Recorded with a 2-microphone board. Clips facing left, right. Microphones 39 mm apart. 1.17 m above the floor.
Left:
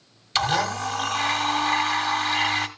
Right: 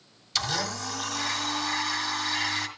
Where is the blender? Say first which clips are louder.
Left 7 dB; 40° left (ahead or behind), 1.7 m.